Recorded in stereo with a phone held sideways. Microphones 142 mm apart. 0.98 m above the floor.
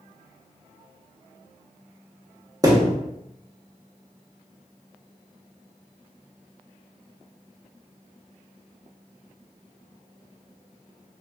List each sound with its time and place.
2.6 s a thud: 25° right (ahead or behind), 0.7 m